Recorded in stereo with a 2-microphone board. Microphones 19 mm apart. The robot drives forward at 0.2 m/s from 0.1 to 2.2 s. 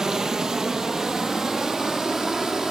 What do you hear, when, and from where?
0.0 s running water: 30° right (ahead or behind), 1.5 m; by 2.7 s 25° right (ahead or behind), 1.9 m